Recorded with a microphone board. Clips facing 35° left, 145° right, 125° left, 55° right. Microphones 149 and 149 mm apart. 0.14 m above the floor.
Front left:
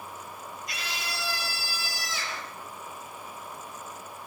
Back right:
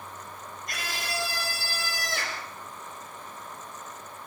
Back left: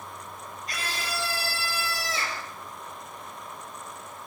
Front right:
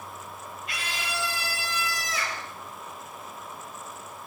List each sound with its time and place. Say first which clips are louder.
0.7 s a scream: back right 4 dB, back left 1 dB; 175° left, 4 m; by 2.5 s 175° right, 3 m